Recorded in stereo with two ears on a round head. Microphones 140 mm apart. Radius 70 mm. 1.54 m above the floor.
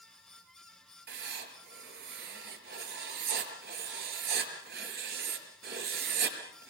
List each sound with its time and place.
1.1 s writing: 70° right (ahead or behind), 5.5 m